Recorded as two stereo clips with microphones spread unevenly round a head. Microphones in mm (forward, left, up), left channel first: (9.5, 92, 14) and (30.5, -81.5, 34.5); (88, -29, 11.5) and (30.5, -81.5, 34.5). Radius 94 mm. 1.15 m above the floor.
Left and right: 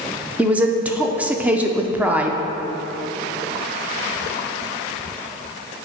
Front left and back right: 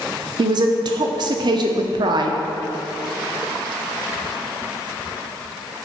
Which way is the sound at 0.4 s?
170° right.